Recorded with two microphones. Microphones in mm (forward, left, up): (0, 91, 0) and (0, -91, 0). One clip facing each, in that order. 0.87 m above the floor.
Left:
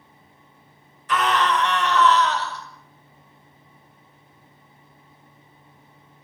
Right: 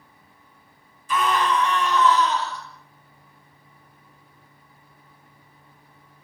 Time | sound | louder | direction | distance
1.1 | a scream | left 1 dB | 80° left | 5.5 m